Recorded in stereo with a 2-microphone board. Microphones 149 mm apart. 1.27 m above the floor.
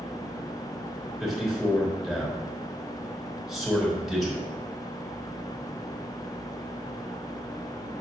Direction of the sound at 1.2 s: Centre (ahead or behind).